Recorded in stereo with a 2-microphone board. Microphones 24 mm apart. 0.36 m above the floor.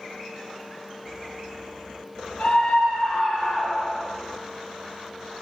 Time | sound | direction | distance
2.4 | a scream | 65° left (ahead or behind) | 4.5 m